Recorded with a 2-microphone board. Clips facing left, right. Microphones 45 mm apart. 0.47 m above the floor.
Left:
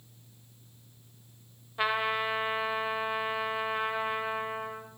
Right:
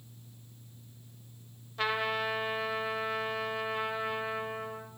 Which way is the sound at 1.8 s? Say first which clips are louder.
Left 2 dB; 15° left (ahead or behind).